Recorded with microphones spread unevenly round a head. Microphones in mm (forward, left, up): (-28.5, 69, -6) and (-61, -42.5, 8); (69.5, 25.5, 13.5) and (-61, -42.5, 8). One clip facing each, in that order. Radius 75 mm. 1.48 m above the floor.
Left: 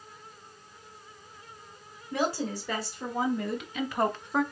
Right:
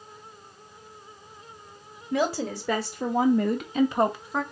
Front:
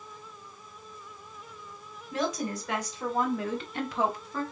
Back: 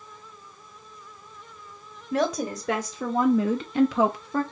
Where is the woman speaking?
115° right, 1.3 m; by 4.4 s 160° left, 0.7 m.